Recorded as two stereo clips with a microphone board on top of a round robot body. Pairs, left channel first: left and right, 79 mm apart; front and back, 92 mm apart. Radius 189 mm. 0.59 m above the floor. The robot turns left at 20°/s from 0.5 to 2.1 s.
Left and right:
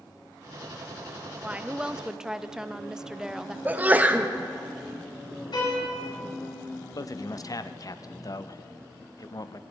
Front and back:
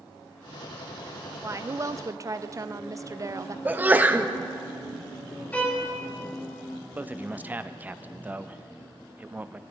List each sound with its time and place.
1.4 s a woman speaking: 150° right, 0.7 m; by 3.5 s 165° right, 0.7 m
3.6 s a sneeze: 130° right, 1.3 m
5.5 s a violin: 75° left, 4.5 m
7.0 s a man speaking: 115° left, 0.8 m